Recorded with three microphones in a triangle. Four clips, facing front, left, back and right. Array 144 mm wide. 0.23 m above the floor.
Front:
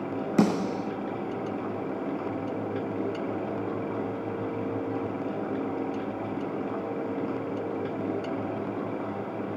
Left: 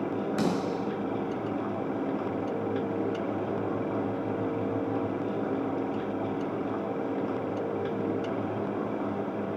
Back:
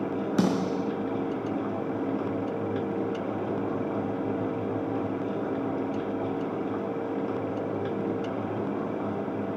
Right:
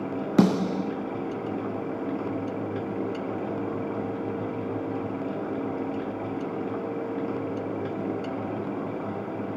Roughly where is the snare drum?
Right.